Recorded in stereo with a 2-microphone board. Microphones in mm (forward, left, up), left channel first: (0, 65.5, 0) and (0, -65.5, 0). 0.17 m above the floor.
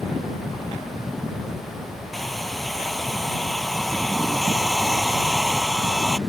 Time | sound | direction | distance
2.1 | a hair dryer | centre (ahead or behind) | ?